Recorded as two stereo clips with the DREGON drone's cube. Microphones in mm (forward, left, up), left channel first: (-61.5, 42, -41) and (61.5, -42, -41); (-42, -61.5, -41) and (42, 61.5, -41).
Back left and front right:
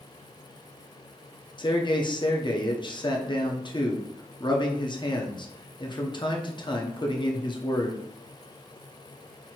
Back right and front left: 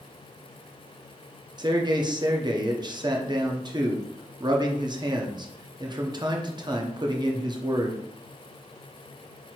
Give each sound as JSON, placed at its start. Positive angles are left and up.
{"t": 1.6, "sound": "a man speaking", "azimuth_deg": 105, "distance_m": 0.7}